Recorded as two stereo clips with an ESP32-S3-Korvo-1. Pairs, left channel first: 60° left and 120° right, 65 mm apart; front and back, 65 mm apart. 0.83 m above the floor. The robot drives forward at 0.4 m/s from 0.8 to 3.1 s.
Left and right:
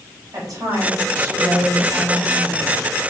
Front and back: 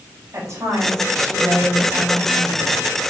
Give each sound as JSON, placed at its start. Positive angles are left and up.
{"t": 0.3, "sound": "a woman speaking", "azimuth_deg": -140, "distance_m": 4.0}